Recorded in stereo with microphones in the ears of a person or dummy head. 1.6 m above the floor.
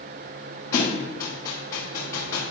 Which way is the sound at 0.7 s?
15° left (ahead or behind).